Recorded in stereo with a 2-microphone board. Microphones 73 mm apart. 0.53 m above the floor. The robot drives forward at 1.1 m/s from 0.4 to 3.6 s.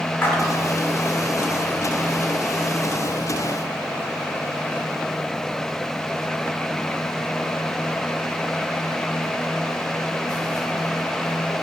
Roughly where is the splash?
Left.